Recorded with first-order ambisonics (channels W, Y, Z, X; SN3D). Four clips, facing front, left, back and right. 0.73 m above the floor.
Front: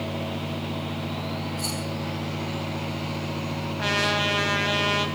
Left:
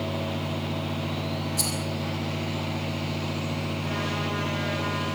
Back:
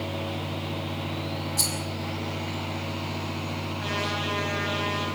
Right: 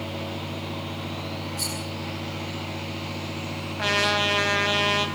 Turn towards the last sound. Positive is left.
turn(degrees=-60)